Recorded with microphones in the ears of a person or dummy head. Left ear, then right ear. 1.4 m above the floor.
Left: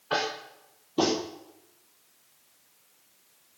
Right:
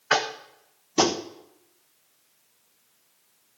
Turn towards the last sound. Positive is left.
turn(degrees=-60)  # may be behind; listen again after turning